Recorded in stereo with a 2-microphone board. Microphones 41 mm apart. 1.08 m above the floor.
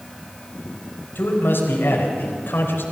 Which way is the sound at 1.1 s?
65° left (ahead or behind).